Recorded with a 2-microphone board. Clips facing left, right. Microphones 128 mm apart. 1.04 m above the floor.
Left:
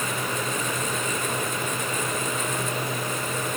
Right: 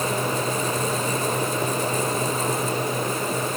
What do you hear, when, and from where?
Only background noise.